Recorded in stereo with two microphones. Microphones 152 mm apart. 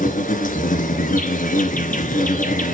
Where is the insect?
65° left (ahead or behind), 2.5 m.